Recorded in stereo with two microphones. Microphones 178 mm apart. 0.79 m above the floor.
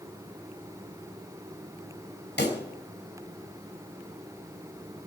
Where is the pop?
70° left (ahead or behind), 3.5 m.